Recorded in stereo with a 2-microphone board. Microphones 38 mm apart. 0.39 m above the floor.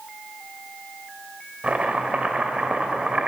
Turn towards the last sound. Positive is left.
turn(degrees=-35)  # may be behind; listen again after turning